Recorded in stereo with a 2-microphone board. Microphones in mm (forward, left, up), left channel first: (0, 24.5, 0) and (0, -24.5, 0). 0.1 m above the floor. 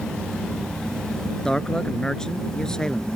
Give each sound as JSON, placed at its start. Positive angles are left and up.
{"t": 1.4, "sound": "a man speaking", "side_deg": 15}